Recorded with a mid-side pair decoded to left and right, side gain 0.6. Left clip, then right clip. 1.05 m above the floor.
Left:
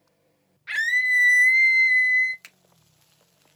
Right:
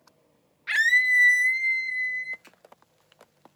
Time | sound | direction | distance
0.7 | a scream | 20° right | 0.7 m
2.4 | a finger snap | 60° left | 1.0 m